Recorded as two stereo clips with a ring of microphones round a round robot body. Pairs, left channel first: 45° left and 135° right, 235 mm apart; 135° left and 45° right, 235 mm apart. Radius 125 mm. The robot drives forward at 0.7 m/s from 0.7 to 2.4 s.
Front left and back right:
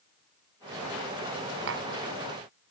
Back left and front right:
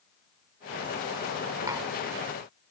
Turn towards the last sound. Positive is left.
turn(degrees=-135)